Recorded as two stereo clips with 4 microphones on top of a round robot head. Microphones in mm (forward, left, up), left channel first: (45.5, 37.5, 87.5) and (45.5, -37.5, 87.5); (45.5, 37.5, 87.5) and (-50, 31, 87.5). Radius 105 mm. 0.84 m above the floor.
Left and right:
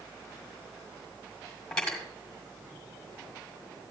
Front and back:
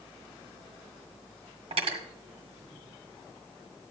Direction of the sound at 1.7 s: 170° left.